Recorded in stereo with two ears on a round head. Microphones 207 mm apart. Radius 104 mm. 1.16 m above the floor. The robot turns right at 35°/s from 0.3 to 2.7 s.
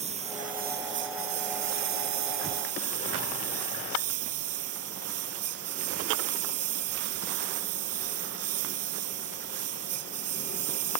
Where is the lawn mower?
150° right; by 11.0 s 65° right.